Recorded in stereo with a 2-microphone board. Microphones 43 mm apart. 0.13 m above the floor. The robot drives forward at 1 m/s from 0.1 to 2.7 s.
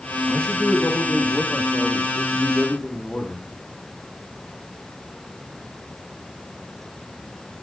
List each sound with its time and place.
0.3 s a man speaking: 20° left (ahead or behind), 5.5 m; by 3.5 s 15° left (ahead or behind), 7.5 m